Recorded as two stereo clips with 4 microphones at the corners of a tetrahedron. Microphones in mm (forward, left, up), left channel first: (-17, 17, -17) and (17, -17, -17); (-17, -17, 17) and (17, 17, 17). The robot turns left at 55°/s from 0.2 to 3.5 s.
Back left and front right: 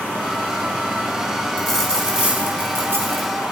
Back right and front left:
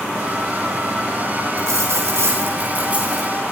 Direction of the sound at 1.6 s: 50° left.